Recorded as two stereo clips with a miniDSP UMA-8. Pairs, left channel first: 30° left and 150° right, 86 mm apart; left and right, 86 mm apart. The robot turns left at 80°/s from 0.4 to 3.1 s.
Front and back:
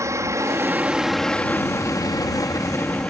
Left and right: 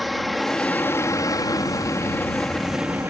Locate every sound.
0.0 s an aircraft: straight behind; by 3.1 s 35° right